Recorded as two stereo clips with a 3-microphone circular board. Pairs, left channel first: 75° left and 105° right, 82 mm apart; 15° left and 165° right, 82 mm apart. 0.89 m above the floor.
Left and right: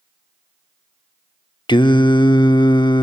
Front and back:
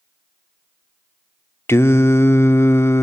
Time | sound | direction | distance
1.7 | singing | 70° left | 0.8 m